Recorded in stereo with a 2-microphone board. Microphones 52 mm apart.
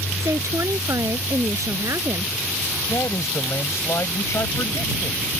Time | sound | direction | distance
0.2 | a woman speaking | 85° right | ?
2.9 | a man speaking | 75° left (ahead or behind) | ?